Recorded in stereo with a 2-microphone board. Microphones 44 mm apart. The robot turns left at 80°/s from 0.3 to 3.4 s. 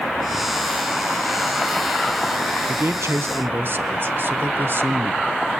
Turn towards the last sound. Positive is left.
turn(degrees=-125)